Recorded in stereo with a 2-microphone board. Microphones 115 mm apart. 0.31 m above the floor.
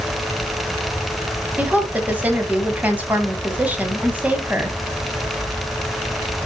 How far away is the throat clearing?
No throat clearing in this recording.